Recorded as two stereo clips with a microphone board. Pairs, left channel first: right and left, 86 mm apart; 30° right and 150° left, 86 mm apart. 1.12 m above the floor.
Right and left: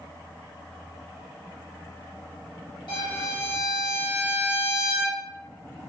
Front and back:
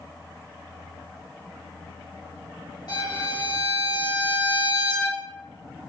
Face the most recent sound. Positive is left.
turn(degrees=-65)